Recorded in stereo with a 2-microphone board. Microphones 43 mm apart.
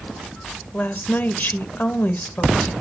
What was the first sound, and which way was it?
A woman speaking, 45° left (ahead or behind).